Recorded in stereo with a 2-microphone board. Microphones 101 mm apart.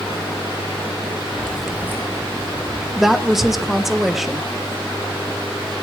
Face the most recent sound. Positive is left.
turn(degrees=0)  # may be behind; listen again after turning